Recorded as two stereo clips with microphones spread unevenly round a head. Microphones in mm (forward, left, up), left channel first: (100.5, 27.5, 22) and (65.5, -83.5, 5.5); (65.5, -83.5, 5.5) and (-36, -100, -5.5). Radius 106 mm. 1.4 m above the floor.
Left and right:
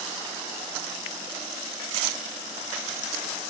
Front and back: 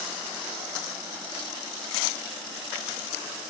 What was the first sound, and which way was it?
Only background noise.